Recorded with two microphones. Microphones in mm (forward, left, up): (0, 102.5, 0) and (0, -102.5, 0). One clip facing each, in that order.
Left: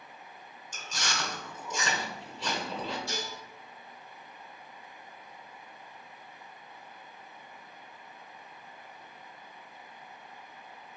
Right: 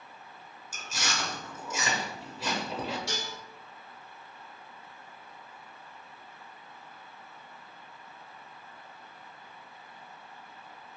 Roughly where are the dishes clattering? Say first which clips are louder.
Even; right.